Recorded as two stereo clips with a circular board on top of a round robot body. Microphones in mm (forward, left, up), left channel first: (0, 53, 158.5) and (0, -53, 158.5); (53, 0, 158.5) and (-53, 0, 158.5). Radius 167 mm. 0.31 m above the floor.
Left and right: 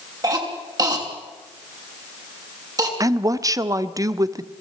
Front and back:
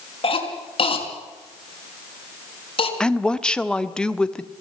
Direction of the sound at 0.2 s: 35° right.